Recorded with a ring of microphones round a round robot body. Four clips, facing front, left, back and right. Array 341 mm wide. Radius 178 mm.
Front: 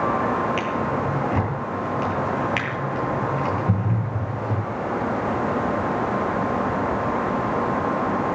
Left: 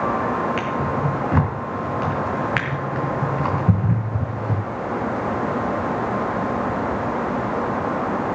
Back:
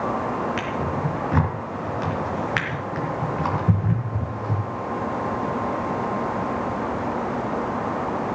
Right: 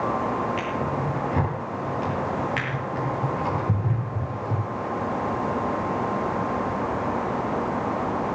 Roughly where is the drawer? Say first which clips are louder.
Left 4 dB, front 2 dB; left.